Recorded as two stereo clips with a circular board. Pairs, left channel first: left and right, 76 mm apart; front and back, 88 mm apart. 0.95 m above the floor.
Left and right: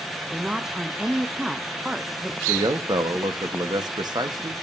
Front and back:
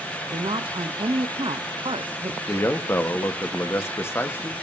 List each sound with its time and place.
0.3 s a woman speaking: 170° right, 0.6 m
2.5 s a man speaking: 60° right, 1.1 m